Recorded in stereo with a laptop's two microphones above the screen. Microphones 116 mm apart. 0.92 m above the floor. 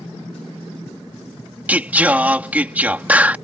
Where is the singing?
15° right (ahead or behind).